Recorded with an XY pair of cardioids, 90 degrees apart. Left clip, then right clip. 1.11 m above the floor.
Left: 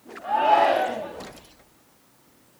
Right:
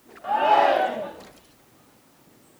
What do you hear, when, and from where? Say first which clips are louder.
0.2 s a shout: even; 5° right, 1.7 m